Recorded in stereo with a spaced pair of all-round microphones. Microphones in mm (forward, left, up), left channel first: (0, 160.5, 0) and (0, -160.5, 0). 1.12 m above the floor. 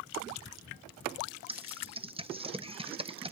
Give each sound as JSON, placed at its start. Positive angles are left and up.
{"t": 1.5, "sound": "typing on a keyboard", "side_deg": -20, "distance_m": 0.5}